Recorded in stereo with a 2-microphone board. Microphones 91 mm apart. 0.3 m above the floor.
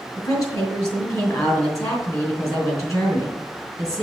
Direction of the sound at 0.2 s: 35° left (ahead or behind).